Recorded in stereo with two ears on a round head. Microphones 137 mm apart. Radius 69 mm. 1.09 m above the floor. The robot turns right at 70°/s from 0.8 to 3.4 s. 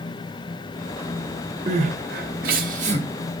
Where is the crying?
40° right (ahead or behind), 1.3 m; by 3.0 s 35° right (ahead or behind), 1.3 m.